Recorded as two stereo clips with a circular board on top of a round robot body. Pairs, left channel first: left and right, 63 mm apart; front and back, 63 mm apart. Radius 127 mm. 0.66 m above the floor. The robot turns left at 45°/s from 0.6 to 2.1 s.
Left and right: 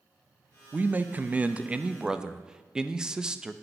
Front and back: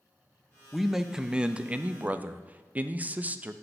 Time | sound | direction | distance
0.7 | a man speaking | 95° right | 0.5 m